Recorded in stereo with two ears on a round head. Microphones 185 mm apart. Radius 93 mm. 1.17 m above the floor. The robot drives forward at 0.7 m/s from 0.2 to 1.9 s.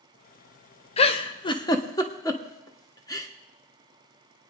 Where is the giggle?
30° left (ahead or behind), 0.7 m; by 3.3 s 20° left (ahead or behind), 1.1 m.